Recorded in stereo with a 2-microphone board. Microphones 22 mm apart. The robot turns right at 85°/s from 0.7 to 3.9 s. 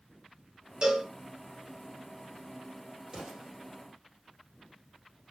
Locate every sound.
0.8 s a cowbell: 40° right (ahead or behind), 0.7 m; by 1.1 s 15° right (ahead or behind), 0.7 m
3.1 s an explosion: 15° right (ahead or behind), 2.5 m; by 3.5 s 50° right (ahead or behind), 2.5 m